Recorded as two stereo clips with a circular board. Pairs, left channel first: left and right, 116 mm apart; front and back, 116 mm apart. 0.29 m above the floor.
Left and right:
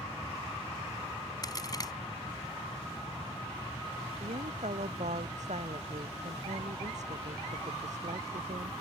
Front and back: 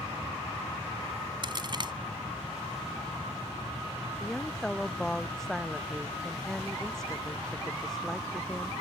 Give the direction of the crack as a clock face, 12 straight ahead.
7 o'clock.